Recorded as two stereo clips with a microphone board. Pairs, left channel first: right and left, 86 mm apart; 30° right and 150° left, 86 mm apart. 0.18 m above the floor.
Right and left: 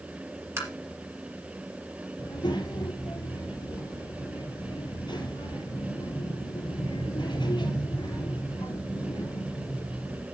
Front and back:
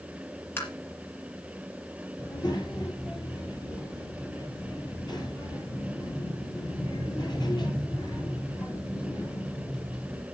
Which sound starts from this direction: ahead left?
Tapping, at 0.6 s.